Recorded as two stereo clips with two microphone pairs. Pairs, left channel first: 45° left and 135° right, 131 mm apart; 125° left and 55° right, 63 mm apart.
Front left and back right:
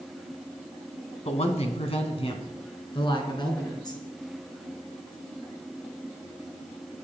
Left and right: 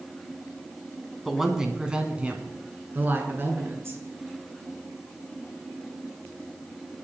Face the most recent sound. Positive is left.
turn(degrees=-10)